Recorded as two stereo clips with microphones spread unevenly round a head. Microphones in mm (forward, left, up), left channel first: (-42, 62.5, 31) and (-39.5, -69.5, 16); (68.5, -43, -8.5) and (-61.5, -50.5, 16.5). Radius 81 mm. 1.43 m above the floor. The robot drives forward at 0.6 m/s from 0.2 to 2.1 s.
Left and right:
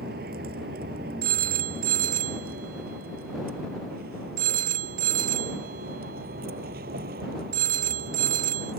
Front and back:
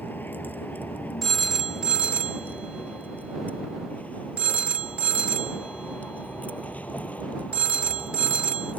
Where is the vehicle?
70° right; by 8.8 s 75° right.